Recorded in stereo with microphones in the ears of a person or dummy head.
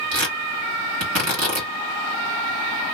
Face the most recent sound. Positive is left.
turn(degrees=-65)  # may be behind; listen again after turning